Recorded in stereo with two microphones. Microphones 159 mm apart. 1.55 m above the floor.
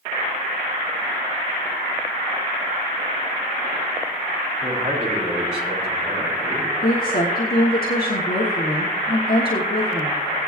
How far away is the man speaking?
About 3.5 m.